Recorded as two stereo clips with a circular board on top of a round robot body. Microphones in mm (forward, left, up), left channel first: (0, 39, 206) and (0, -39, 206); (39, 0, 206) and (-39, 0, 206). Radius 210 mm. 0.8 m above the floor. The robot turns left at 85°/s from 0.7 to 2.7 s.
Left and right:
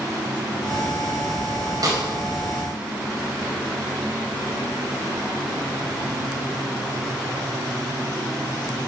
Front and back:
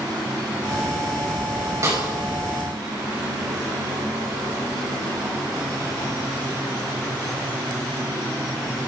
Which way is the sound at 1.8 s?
130° right.